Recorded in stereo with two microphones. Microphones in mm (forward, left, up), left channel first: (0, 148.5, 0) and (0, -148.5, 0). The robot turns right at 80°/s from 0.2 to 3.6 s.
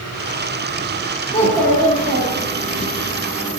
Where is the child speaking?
20° left, 1.1 m; by 2.9 s 145° left, 1.1 m.